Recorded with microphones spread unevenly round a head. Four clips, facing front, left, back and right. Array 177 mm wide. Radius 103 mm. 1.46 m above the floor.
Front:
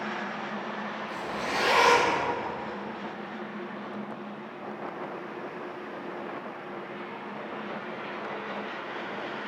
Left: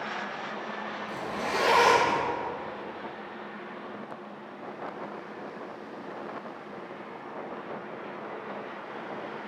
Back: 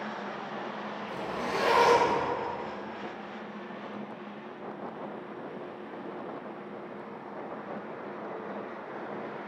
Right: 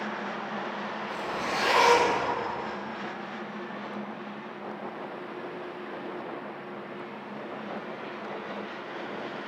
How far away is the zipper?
About 1.8 m.